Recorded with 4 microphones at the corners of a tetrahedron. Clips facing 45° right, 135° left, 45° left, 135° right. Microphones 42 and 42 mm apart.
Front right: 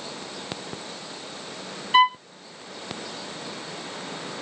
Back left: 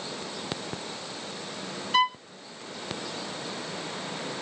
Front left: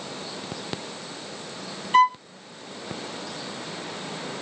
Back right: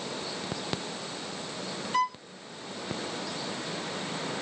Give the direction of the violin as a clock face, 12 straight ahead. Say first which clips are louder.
Front right 6 dB, front left 10 dB; 11 o'clock.